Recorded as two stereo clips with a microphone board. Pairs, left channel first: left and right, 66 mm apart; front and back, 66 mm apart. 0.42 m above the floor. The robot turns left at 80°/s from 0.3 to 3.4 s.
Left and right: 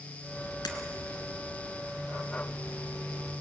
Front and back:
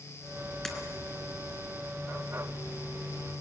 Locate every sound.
0.7 s breaking glass: 85° left, 2 m; by 0.8 s 75° left, 2 m